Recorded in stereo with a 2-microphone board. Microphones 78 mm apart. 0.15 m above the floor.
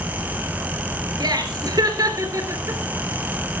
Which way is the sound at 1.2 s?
60° right (ahead or behind).